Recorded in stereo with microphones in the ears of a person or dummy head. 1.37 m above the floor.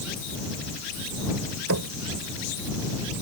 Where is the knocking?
85° right.